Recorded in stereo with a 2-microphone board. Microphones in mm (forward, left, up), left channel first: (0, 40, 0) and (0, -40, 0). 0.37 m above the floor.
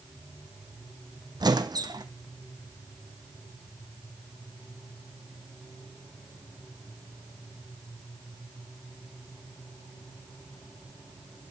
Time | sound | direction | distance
1.4 | a squeak | 55° right (ahead or behind) | 1.1 m